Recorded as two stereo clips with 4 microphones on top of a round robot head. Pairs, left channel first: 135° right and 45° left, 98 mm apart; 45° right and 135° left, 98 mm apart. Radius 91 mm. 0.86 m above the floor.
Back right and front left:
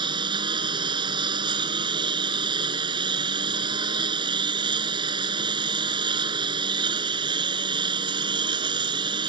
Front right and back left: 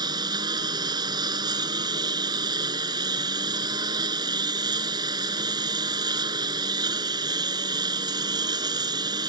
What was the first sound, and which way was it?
A lawn mower, 85° left.